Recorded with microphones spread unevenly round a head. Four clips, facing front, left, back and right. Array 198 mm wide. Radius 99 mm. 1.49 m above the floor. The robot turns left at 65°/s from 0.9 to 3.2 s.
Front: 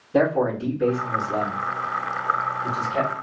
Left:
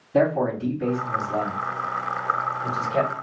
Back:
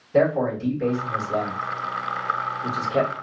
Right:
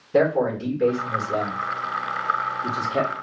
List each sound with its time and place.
0.1 s a man speaking: 75° right, 2.5 m; by 3.1 s 140° left, 2.5 m